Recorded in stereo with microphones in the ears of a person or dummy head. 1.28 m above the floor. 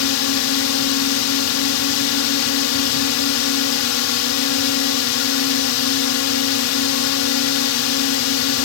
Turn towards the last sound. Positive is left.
turn(degrees=75)  # may be behind; listen again after turning